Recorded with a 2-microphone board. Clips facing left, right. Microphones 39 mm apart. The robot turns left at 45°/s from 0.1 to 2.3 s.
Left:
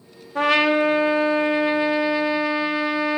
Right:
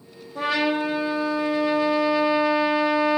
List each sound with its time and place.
0.3 s a trumpet: 90° left, 0.9 m; by 3.2 s 5° left, 0.9 m